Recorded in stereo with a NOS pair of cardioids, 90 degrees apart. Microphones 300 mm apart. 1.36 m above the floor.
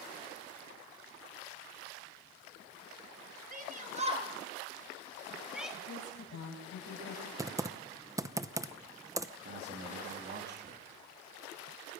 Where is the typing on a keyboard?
10° right, 0.9 m.